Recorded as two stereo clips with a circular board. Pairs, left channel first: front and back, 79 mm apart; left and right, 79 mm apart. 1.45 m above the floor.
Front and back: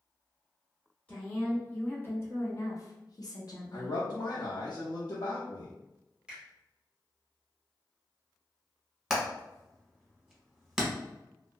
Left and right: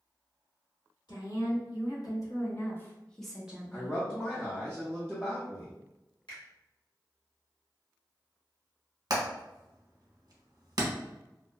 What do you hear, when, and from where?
1.1 s a woman speaking: 70° left, 1.4 m; by 4.0 s 35° right, 0.7 m
3.7 s a man speaking: 15° left, 0.6 m
6.3 s a finger snap: 100° left, 1.3 m
9.1 s hammering: 95° right, 0.8 m